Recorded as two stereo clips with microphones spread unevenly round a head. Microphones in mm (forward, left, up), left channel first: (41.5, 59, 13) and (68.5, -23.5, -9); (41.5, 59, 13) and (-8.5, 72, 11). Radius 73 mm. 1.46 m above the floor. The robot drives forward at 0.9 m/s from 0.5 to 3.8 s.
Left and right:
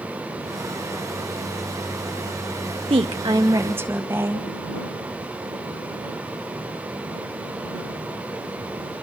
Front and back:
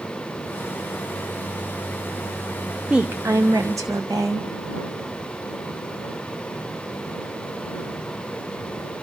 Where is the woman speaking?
110° right, 0.8 m; by 4.5 s 145° right, 1.3 m.